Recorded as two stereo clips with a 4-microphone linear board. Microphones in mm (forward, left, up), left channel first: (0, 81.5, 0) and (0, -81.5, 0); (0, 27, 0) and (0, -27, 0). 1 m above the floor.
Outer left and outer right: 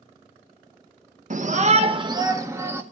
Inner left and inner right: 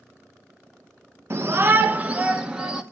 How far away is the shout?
About 0.7 m.